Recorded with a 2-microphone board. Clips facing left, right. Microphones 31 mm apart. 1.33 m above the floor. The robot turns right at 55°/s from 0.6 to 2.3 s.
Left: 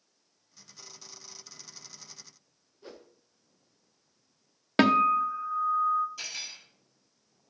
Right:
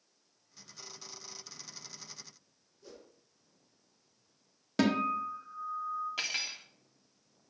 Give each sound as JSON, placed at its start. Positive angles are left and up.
{"t": 2.8, "sound": "a whoosh", "side_deg": 45, "distance_m": 0.7}
{"t": 4.8, "sound": "a guitar", "side_deg": 45, "distance_m": 0.6}
{"t": 6.2, "sound": "cutlery clinking", "side_deg": -65, "distance_m": 1.9}